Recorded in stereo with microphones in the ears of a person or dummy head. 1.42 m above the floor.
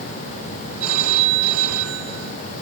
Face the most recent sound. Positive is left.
turn(degrees=-80)